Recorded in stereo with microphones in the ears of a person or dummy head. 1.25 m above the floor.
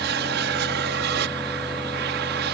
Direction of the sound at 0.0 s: 55° right (ahead or behind).